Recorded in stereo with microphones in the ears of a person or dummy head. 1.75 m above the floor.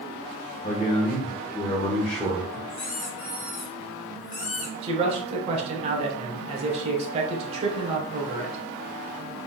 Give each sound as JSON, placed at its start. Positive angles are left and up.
{"t": 0.6, "sound": "a man speaking", "side_deg": 40, "distance_m": 1.6}
{"t": 2.7, "sound": "a squeak", "side_deg": 40, "distance_m": 2.0}
{"t": 4.8, "sound": "a man speaking", "side_deg": -35, "distance_m": 1.5}